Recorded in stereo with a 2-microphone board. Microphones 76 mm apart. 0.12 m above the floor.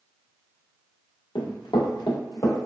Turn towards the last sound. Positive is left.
turn(degrees=50)  # may be behind; listen again after turning